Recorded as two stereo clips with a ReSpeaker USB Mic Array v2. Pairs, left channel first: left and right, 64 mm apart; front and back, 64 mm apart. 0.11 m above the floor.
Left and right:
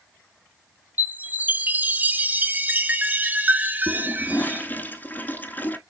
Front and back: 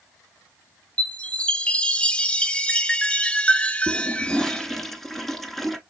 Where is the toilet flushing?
80° left, 0.8 m.